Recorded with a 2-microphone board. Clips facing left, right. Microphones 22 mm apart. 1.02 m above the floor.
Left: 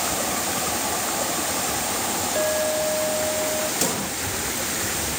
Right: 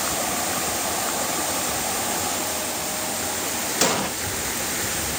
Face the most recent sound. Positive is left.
turn(degrees=-30)  # may be behind; listen again after turning